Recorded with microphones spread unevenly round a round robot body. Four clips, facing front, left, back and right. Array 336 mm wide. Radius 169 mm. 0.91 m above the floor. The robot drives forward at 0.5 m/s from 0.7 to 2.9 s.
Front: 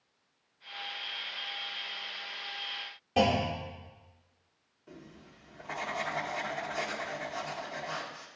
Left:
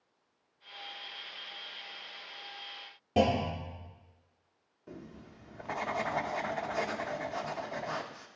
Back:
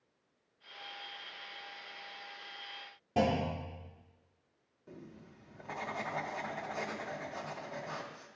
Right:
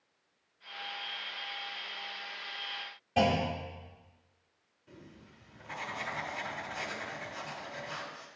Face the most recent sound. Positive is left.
turn(degrees=75)